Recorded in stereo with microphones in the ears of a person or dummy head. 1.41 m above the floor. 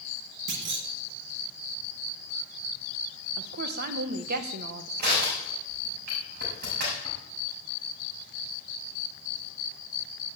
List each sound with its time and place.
0.5 s a clunk: 60° right (ahead or behind), 1.3 m
3.4 s a woman speaking: 50° right (ahead or behind), 1.3 m
5.0 s crushing: 50° right (ahead or behind), 6 m